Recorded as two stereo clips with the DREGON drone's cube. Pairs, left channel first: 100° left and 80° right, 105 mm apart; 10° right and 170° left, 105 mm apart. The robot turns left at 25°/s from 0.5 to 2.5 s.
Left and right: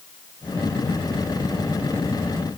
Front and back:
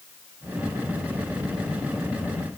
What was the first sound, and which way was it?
Only background noise.